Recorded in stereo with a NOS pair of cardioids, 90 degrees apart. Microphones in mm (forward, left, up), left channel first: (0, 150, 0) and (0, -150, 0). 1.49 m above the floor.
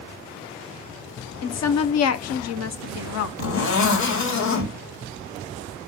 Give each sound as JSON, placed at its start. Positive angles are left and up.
{"t": 1.4, "sound": "a woman speaking", "azimuth_deg": 60, "distance_m": 0.8}
{"t": 3.4, "sound": "a zipper", "azimuth_deg": 70, "distance_m": 2.0}